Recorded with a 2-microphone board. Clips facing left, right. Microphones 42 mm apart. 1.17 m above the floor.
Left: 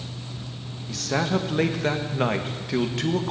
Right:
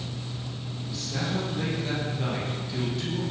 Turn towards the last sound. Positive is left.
turn(degrees=75)  # may be behind; listen again after turning